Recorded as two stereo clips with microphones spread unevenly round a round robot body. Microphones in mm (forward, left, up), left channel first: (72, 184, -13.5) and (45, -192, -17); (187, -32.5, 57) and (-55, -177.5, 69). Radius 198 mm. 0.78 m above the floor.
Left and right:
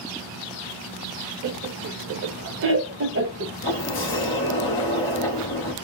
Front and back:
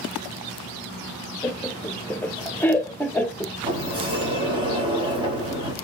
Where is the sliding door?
140° left, 0.8 m.